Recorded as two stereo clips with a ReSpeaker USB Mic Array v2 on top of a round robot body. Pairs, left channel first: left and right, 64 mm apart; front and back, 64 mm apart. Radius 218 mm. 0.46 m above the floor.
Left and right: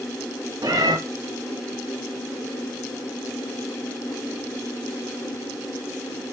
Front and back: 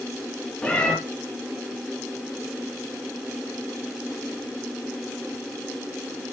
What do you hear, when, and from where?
0.6 s a cat meowing: 70° right, 3 m